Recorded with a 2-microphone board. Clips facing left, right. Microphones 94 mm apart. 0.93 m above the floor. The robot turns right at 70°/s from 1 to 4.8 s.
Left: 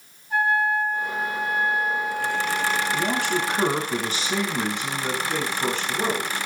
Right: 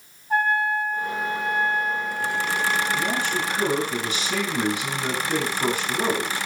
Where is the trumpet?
50° right, 4.5 m; by 3.7 s 145° left, 4.5 m.